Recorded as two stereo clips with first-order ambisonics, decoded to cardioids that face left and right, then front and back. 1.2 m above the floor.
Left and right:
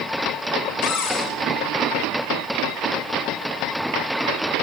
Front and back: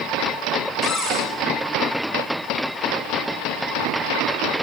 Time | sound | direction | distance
0.8 | a cupboard door | 100° left | 4.5 m